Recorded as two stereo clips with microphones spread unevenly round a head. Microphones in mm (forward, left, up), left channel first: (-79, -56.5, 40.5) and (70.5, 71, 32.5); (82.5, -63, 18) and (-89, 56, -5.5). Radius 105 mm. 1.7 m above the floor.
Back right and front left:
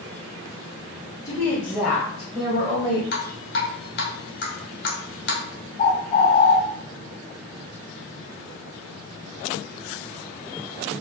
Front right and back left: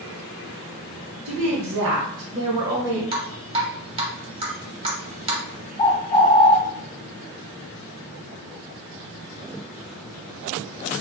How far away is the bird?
About 0.6 m.